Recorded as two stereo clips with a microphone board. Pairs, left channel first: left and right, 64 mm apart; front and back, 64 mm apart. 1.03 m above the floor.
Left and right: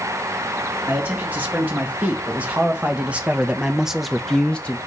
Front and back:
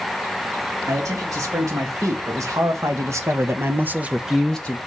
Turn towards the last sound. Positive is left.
turn(degrees=45)